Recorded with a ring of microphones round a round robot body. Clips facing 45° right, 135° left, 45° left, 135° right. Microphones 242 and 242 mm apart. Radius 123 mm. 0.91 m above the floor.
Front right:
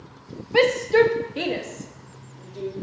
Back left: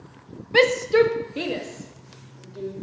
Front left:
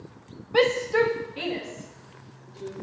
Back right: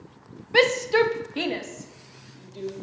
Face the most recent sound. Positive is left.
turn(degrees=-130)